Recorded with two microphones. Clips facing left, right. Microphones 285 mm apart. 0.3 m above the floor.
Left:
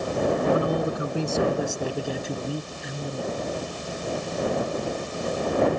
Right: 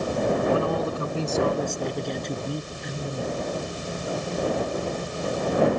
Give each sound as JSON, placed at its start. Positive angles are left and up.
{"t": 0.5, "sound": "a man speaking", "side_deg": 20}